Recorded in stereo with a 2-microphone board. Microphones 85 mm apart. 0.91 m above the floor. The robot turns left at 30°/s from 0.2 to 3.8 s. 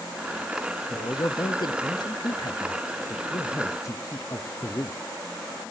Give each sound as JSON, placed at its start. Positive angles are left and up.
{"t": 0.9, "sound": "a man speaking", "azimuth_deg": 130, "distance_m": 0.8}